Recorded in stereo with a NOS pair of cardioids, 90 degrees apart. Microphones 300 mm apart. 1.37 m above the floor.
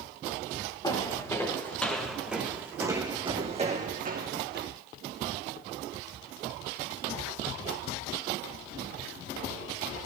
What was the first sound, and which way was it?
Footsteps, 15° left.